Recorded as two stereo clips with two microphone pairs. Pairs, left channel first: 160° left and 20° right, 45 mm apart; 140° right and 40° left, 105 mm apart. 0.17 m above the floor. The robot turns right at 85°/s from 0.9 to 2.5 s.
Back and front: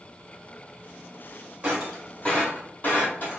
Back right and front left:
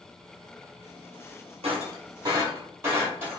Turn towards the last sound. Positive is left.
turn(degrees=110)